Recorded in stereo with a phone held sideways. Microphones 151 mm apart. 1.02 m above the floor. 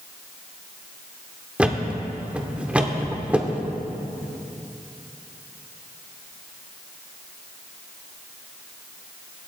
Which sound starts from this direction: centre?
A thud, at 1.6 s.